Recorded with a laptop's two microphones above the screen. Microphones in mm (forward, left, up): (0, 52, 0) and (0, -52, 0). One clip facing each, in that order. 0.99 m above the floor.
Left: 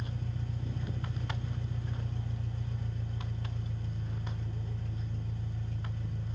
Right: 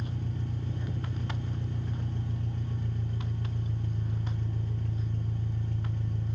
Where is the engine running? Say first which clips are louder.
Right 4 dB; 60° right (ahead or behind), 1.0 m.